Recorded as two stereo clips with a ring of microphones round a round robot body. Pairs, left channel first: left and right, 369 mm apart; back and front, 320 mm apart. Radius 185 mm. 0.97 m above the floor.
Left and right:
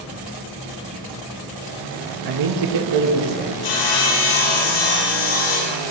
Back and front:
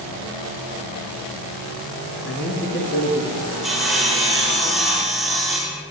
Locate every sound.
2.2 s a man speaking: 120° right, 1.5 m; by 3.5 s 110° right, 2 m
3.6 s sawing: 90° left, 4 m